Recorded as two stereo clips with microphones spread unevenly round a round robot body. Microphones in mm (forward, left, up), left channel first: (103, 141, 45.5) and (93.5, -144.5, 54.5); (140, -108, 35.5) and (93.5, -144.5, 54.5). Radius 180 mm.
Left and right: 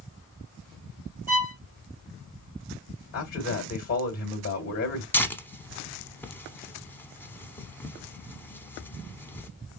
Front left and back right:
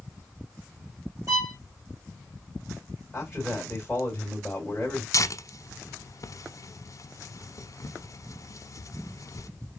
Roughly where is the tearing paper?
Ahead.